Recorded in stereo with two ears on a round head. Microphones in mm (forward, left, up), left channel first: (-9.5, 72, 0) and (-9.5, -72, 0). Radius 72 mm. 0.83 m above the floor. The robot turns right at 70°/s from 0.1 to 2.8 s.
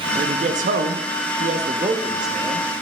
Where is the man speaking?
150° right, 0.7 m; by 2.7 s 25° left, 0.7 m.